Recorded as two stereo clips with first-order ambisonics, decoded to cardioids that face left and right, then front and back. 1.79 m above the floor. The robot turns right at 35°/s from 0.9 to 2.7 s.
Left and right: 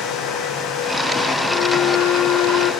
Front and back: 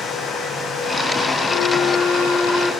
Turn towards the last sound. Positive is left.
turn(degrees=75)